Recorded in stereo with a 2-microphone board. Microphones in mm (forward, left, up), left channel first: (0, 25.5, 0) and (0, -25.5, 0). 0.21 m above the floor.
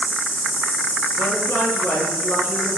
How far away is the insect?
About 4 m.